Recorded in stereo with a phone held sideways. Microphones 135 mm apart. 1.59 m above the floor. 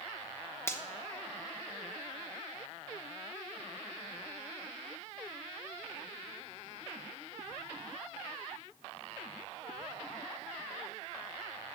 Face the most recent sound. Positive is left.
turn(degrees=20)  # may be behind; listen again after turning